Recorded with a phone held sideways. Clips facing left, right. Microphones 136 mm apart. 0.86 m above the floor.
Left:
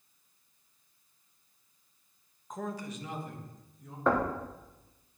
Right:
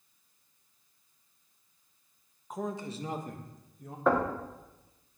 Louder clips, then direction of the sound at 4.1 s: Right 1 dB; 5° right (ahead or behind).